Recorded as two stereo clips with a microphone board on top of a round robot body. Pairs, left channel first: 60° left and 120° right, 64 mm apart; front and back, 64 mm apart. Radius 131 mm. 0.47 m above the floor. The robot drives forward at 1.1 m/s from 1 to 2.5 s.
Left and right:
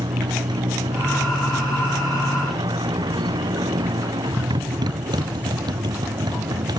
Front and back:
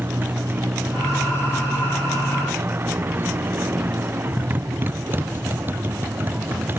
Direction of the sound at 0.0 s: 115° right.